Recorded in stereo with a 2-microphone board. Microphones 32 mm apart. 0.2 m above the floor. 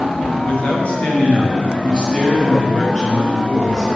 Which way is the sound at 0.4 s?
45° left (ahead or behind).